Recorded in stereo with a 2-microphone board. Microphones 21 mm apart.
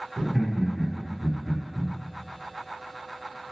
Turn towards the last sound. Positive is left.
turn(degrees=-15)  # may be behind; listen again after turning